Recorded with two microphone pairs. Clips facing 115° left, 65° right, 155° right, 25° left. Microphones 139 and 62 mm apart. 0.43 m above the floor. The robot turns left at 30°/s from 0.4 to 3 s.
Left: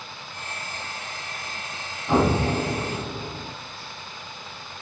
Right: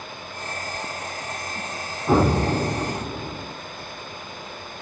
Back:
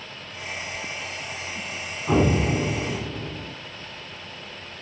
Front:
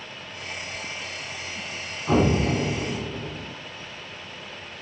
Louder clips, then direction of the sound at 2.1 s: Right 2 dB, even; 65° right.